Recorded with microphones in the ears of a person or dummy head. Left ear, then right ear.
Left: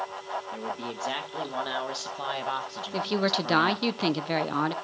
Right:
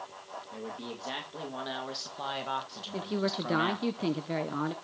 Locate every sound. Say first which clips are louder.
0.5 s a man speaking: left 6 dB; 45° left (ahead or behind), 2.5 m; by 3.9 s 10° right (ahead or behind), 1.4 m
2.9 s a woman speaking: left 6 dB; 25° left (ahead or behind), 0.8 m